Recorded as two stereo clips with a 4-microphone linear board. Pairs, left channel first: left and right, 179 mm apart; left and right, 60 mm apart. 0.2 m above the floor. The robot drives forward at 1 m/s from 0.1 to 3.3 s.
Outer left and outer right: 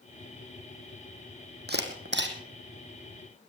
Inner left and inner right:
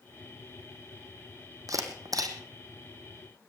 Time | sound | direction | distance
1.7 | a camera shutter | 60° right (ahead or behind) | 3 m